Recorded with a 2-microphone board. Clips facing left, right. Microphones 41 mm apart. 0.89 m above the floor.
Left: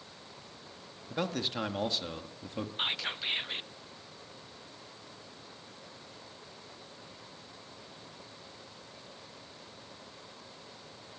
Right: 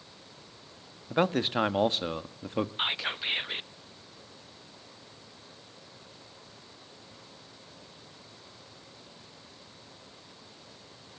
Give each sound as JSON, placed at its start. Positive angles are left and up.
{"t": 1.1, "sound": "a man speaking", "side_deg": -35, "distance_m": 1.2}
{"t": 2.8, "sound": "whispering", "side_deg": -20, "distance_m": 0.7}